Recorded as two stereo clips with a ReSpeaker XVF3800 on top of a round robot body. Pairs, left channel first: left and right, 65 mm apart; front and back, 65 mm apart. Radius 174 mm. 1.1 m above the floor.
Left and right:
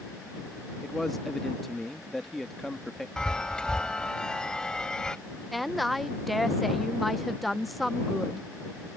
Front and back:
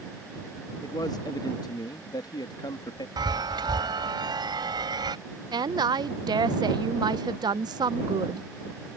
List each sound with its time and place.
0.8 s a man speaking: 5° left
3.2 s a chime: 170° left
5.5 s a woman speaking: straight behind